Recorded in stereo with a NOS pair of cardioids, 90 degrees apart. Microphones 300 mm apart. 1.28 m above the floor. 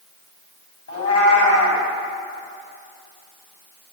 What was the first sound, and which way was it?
A cat meowing, 55° left.